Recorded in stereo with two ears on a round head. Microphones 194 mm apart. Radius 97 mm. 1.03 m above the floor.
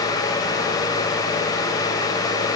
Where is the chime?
I don't hear a chime.